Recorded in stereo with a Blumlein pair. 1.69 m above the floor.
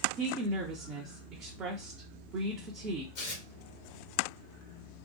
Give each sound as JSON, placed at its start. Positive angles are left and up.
{"t": 0.2, "sound": "a woman speaking", "azimuth_deg": -30, "distance_m": 0.6}
{"t": 3.1, "sound": "tearing paper", "azimuth_deg": 45, "distance_m": 0.9}